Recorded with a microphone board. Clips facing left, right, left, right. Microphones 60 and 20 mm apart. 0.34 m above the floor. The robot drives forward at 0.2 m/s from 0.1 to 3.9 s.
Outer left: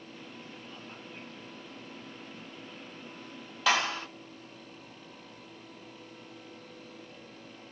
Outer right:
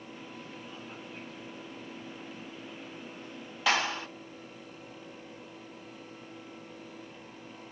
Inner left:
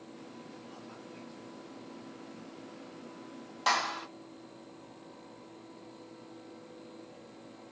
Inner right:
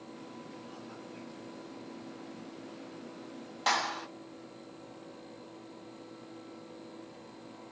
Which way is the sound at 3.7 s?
Centre (ahead or behind).